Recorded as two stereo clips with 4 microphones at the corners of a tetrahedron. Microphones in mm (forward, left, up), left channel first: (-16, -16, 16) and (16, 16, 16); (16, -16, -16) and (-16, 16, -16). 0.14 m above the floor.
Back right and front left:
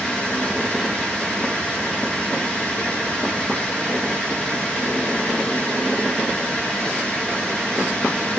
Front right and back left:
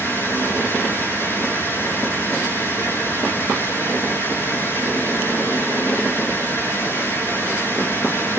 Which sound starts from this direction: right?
Running water, at 0.0 s.